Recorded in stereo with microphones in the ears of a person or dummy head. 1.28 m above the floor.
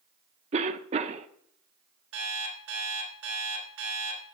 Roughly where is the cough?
Right.